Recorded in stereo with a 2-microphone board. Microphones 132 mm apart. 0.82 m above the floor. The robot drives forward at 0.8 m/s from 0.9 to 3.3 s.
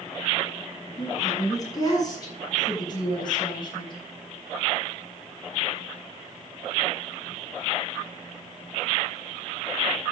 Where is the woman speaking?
25° left (ahead or behind), 7.5 m; by 4.0 s 35° left (ahead or behind), 6 m.